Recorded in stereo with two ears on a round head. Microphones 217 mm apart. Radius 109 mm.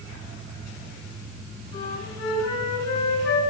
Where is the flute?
80° left, 4 m.